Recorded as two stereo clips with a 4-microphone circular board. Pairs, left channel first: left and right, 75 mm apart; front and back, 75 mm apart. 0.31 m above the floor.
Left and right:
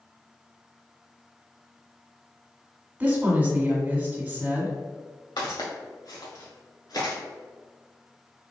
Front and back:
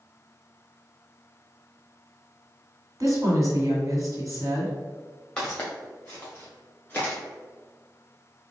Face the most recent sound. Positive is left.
turn(degrees=70)